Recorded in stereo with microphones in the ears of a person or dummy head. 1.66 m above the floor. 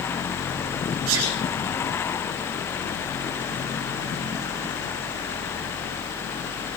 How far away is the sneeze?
About 4 m.